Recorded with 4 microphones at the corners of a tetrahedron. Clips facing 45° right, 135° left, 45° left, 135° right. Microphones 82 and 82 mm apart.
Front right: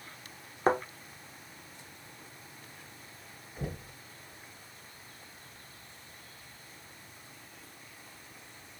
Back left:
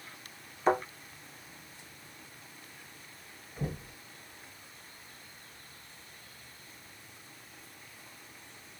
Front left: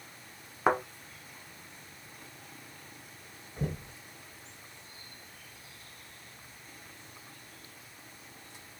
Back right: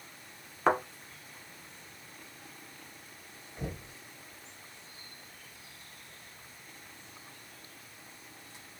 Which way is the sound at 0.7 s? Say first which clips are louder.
Even, even; 30° right.